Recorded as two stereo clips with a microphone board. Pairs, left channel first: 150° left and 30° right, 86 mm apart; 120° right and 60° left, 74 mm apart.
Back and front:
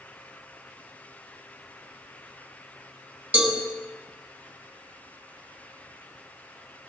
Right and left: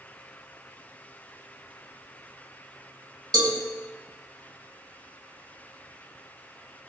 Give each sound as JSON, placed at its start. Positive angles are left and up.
{"t": 3.3, "sound": "a cowbell", "azimuth_deg": 45, "distance_m": 3.0}